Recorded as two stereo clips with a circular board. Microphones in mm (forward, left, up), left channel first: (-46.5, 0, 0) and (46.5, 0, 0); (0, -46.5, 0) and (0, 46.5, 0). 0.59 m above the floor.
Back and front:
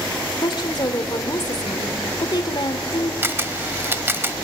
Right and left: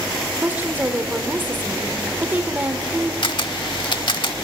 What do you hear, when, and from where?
0.4 s a woman speaking: 155° left, 1.9 m
3.2 s a camera shutter: 65° right, 0.8 m